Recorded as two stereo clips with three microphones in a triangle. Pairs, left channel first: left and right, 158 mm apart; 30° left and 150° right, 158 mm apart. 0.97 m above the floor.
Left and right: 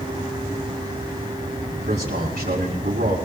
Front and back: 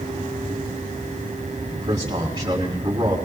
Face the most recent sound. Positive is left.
turn(degrees=-95)